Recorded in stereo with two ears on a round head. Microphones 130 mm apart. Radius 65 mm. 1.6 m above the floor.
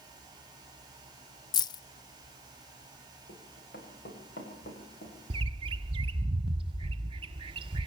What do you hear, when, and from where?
1.5 s keys jangling: 30° left (ahead or behind), 0.7 m
3.3 s running footsteps: 70° left (ahead or behind), 8 m; by 5.1 s 60° left (ahead or behind), 8 m
5.3 s a bird: 35° right (ahead or behind), 0.8 m